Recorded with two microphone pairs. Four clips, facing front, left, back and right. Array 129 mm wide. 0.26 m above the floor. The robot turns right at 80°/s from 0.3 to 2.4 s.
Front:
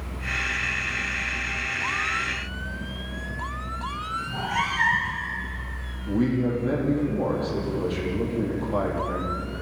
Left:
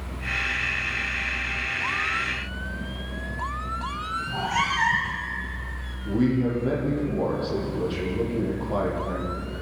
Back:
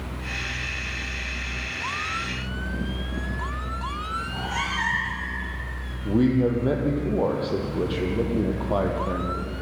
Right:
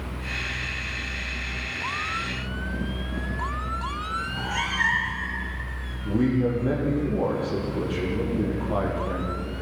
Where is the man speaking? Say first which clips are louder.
Even, back 3 dB; 175° left, 7.5 m.